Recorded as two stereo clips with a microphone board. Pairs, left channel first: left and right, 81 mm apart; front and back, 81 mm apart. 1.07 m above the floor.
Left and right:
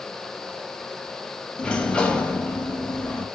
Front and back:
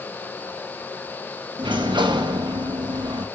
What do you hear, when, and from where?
1.6 s a sliding door: 170° left, 0.5 m